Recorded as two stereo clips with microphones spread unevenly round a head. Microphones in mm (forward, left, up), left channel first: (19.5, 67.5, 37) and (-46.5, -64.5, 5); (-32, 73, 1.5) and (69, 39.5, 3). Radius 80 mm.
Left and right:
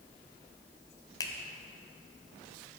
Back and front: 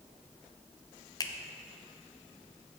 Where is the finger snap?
115° left, 0.8 m.